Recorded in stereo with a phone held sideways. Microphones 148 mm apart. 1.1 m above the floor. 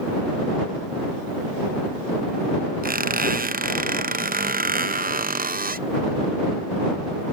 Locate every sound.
2.8 s a squeak: 75° right (ahead or behind)